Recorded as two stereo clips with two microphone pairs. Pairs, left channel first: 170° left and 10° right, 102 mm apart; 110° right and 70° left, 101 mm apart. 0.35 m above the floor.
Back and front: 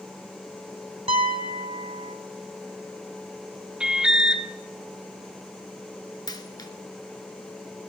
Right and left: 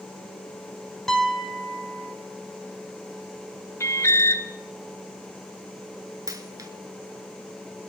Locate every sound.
1.1 s a piano: 20° right, 0.8 m
3.8 s an alarm: 80° right, 0.6 m
6.3 s a dropped coin: 120° left, 1.0 m